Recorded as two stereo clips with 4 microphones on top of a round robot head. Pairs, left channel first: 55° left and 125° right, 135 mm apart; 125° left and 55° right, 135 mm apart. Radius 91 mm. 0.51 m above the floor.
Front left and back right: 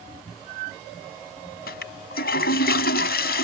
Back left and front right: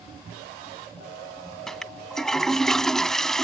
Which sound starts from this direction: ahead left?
A toilet flushing, at 1.7 s.